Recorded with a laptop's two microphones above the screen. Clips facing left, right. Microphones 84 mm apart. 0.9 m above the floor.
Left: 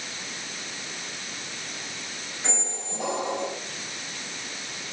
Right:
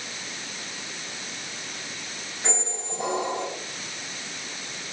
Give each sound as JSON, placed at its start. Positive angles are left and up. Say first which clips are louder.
{"t": 2.4, "sound": "a squeak", "louder": "right 3 dB", "side_deg": -5, "distance_m": 4.0}